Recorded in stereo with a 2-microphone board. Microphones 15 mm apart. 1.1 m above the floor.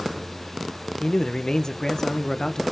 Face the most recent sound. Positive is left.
turn(degrees=50)  # may be behind; listen again after turning